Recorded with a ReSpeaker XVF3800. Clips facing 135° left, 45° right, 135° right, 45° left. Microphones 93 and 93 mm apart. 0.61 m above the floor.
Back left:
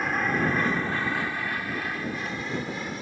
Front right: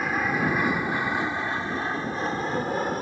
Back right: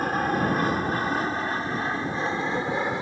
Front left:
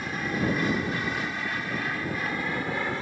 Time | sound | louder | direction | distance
0.0 | an aircraft | even, back right 5 dB | 130° right | ?